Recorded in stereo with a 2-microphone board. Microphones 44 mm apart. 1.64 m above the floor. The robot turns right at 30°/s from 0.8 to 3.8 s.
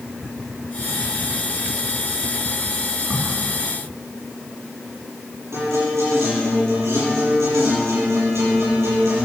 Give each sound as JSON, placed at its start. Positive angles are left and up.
{"t": 3.1, "sound": "a crack", "side_deg": -55, "distance_m": 4.0}
{"t": 5.5, "sound": "a guitar", "side_deg": -75, "distance_m": 8.5}